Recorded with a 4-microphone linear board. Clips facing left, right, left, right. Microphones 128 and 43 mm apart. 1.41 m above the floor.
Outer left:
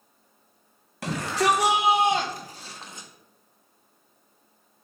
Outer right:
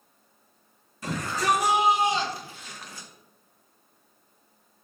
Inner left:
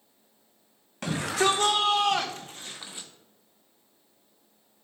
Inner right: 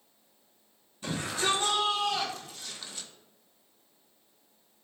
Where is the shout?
75° left (ahead or behind), 2.0 m; by 3.1 s 15° left (ahead or behind), 1.7 m.